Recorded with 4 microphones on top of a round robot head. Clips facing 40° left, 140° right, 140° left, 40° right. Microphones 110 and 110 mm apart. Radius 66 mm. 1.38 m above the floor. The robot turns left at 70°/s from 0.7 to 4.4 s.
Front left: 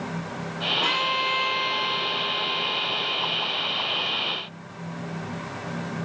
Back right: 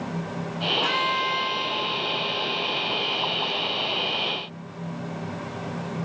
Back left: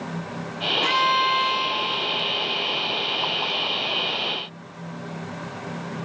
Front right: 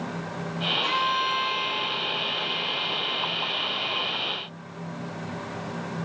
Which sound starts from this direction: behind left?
A violin, at 0.8 s.